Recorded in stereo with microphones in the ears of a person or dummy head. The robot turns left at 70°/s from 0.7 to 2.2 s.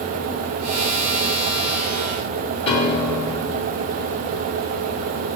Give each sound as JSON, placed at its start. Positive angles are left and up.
{"t": 2.7, "sound": "a piano", "side_deg": 30, "distance_m": 0.9}